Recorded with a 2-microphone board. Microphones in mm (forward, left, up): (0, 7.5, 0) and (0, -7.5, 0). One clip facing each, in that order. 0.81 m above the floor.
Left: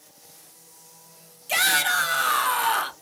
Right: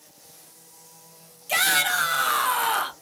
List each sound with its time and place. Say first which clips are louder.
1.5 s a shout: even; centre (ahead or behind), 0.5 m